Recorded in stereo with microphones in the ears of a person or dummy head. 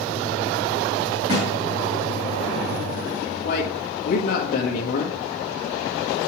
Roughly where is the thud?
Right.